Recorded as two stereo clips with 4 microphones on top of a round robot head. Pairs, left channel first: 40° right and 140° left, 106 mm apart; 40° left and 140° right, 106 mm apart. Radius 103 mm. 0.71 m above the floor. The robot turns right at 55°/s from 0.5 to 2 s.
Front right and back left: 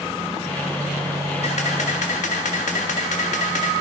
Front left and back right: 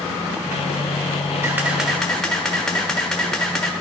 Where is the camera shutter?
75° right, 0.5 m; by 3.7 s 45° right, 0.5 m.